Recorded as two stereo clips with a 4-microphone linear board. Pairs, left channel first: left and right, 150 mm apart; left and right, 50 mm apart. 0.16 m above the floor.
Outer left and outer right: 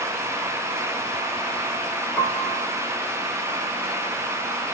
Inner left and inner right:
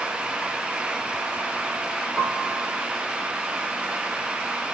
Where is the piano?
5° left (ahead or behind), 2.5 m.